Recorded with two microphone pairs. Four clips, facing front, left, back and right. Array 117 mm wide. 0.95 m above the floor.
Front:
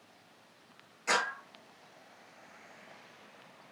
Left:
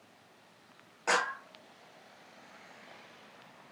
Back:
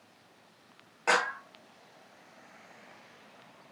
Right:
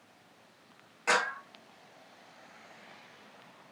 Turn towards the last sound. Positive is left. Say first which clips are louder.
# right 1 dB, back 4 dB
turn(degrees=175)